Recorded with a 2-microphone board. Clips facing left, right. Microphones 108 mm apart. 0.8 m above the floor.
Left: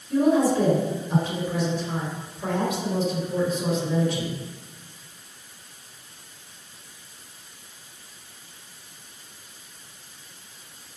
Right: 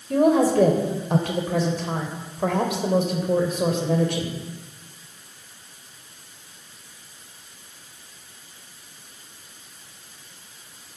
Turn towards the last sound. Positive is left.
turn(degrees=-65)  # may be behind; listen again after turning